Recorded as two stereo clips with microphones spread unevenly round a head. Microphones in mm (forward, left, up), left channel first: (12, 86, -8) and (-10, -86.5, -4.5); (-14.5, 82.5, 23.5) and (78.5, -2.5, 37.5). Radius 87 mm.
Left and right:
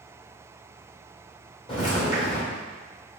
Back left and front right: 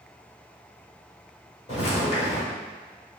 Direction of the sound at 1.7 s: 125° left.